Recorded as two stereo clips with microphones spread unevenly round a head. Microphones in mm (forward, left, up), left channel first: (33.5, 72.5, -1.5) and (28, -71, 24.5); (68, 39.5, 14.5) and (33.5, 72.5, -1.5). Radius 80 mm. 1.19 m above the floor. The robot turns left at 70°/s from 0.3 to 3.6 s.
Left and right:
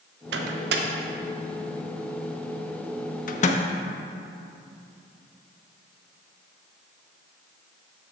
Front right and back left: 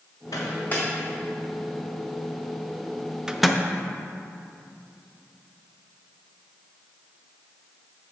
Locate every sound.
0.3 s a microwave: 95° right, 0.7 m; by 3.6 s 35° left, 0.7 m